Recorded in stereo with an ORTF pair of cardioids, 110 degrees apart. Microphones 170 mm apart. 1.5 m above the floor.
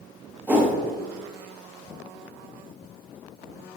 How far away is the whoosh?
About 0.5 m.